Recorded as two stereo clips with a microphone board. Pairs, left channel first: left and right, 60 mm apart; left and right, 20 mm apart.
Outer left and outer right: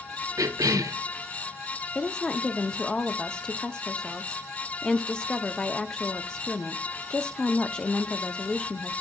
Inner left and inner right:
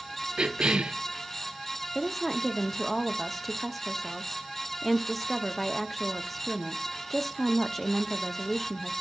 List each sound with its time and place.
0.4 s a cough: 70° right (ahead or behind), 0.9 m
1.9 s a woman speaking: 15° left (ahead or behind), 0.7 m